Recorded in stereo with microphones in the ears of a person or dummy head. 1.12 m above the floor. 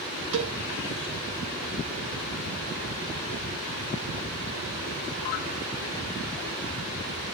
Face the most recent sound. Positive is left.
turn(degrees=-70)  # may be behind; listen again after turning